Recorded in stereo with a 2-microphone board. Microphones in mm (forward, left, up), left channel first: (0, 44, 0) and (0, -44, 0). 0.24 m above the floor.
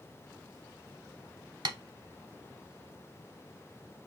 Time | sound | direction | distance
1.6 | tapping | 60° right (ahead or behind) | 0.8 m